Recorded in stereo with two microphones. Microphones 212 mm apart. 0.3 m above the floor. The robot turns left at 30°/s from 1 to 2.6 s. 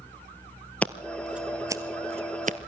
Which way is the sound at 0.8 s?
5° left (ahead or behind).